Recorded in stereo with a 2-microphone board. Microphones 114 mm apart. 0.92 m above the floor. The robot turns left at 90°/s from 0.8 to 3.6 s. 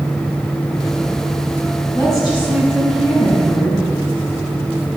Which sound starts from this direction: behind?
A woman speaking, at 1.9 s.